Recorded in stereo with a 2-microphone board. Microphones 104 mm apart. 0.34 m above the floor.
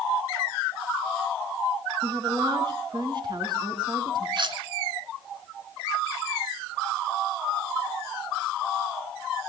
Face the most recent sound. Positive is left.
turn(degrees=-50)  # may be behind; listen again after turning